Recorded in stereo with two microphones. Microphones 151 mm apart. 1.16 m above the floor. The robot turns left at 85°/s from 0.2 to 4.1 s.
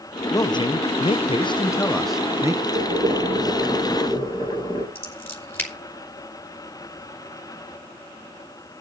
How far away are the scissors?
About 3.5 m.